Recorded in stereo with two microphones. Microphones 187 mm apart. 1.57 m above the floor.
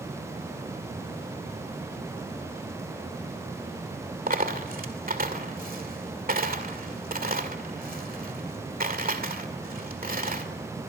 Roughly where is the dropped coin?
Right.